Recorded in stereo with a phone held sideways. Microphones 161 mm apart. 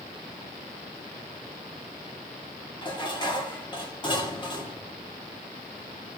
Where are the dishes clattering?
30° left (ahead or behind), 2.0 m.